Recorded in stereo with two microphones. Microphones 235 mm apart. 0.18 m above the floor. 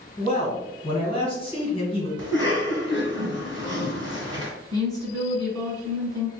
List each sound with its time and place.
0.2 s a man speaking: 25° left (ahead or behind), 1.9 m
2.2 s a cough: 20° right (ahead or behind), 2.0 m
4.7 s a woman speaking: 15° left (ahead or behind), 1.4 m